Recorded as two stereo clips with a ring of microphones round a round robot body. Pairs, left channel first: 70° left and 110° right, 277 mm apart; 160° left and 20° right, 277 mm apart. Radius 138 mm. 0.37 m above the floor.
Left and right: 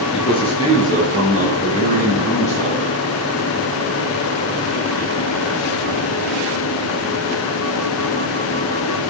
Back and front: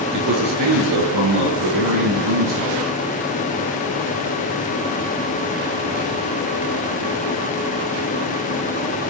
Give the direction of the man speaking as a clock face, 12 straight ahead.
12 o'clock.